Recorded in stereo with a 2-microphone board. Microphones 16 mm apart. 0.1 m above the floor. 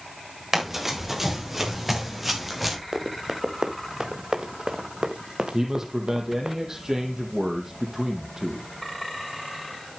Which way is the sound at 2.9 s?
40° right (ahead or behind).